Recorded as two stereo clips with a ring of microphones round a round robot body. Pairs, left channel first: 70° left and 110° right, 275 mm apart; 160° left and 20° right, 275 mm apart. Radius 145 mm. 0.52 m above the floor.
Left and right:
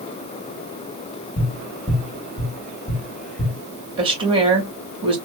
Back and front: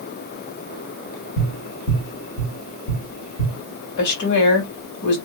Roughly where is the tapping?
Behind left.